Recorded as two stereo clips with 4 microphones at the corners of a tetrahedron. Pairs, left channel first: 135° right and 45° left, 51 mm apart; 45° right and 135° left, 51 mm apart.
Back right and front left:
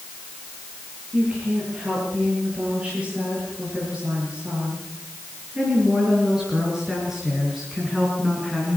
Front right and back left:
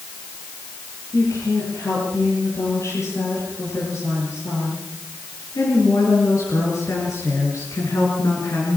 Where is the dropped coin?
I don't hear a dropped coin.